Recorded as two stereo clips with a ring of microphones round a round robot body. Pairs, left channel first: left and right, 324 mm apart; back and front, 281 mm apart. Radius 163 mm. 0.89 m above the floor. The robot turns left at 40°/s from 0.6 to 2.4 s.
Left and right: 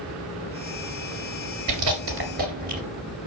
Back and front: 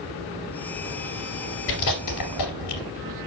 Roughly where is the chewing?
Behind right.